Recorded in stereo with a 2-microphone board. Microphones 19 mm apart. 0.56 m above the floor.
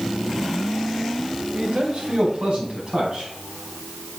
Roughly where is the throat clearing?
No throat clearing in this recording.